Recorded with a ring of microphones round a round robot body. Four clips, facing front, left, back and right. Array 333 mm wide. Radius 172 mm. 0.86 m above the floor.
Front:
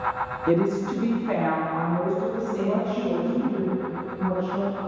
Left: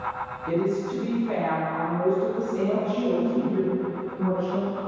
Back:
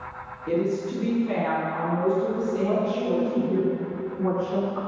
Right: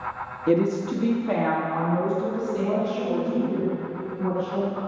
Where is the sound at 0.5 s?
60° right, 1.7 m; by 3.6 s 95° right, 3 m.